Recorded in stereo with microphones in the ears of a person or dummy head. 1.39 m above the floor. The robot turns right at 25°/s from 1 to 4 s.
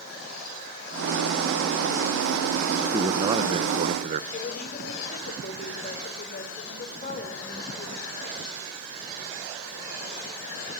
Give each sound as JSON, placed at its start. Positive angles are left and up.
{"t": 2.9, "sound": "a man speaking", "side_deg": -15, "distance_m": 0.9}
{"t": 4.3, "sound": "a woman speaking", "side_deg": 45, "distance_m": 4.5}